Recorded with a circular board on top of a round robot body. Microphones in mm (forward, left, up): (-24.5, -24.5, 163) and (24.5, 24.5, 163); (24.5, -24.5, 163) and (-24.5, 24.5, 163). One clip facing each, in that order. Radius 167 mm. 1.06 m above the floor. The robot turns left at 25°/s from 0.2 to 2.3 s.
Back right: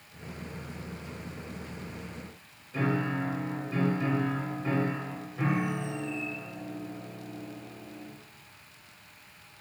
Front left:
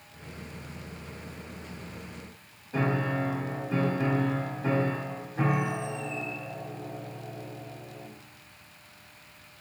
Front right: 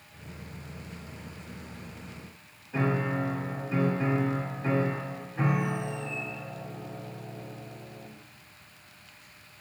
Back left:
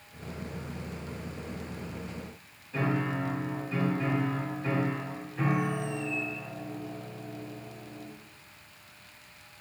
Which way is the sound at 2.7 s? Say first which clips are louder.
Front left 1 dB, front right 2 dB; 25° left.